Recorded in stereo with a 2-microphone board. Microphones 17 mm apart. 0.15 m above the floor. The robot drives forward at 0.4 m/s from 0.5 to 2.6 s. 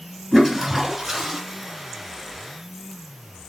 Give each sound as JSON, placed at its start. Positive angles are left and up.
{"t": 0.3, "sound": "a toilet flushing", "side_deg": -15, "distance_m": 1.6}